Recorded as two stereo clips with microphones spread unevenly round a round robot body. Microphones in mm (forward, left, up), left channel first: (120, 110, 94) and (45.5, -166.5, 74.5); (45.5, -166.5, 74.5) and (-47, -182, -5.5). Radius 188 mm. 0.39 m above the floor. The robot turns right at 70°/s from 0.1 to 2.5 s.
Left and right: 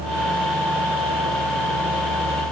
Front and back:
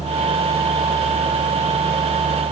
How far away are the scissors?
No scissors in this recording.